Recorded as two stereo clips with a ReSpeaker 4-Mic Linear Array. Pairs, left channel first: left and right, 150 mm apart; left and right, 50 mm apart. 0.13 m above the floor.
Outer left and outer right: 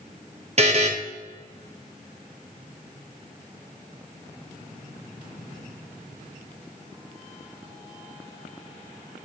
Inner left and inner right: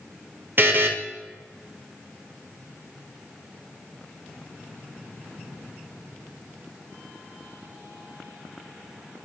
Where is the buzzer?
45° right (ahead or behind), 0.9 m.